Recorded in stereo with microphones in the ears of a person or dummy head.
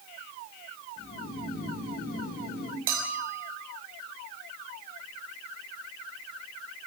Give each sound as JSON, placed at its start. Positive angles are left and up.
{"t": 1.0, "sound": "snoring", "side_deg": 50, "distance_m": 5.0}
{"t": 2.9, "sound": "a bell", "side_deg": -50, "distance_m": 4.5}